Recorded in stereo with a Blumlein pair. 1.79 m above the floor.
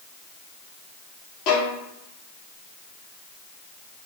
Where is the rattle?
No rattle in this recording.